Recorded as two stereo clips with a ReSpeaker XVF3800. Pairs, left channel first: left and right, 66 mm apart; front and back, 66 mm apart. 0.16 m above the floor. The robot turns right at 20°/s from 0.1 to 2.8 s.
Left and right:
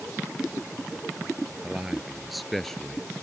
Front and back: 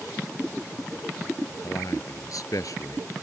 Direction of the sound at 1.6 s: 15° right.